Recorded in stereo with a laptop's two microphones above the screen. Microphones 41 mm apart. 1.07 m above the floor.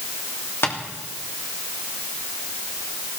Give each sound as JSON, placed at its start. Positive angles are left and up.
{"t": 0.6, "sound": "tapping", "side_deg": 75, "distance_m": 3.0}